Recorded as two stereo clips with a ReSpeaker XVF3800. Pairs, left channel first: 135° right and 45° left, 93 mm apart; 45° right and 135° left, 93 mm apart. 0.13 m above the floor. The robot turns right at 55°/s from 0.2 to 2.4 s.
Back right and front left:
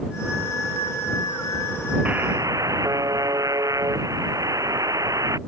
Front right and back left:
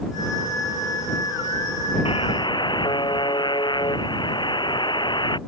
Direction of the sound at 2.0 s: 30° right.